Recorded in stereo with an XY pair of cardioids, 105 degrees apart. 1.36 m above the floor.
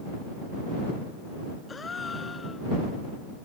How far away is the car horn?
No car horn in this recording.